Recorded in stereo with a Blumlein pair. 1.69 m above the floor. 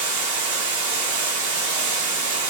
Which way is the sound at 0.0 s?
55° right.